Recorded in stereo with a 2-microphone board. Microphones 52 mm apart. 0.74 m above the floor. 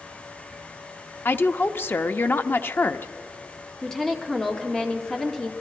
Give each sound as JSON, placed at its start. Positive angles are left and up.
{"t": 1.2, "sound": "a woman speaking", "side_deg": 45, "distance_m": 0.8}
{"t": 3.8, "sound": "a woman speaking", "side_deg": 10, "distance_m": 2.0}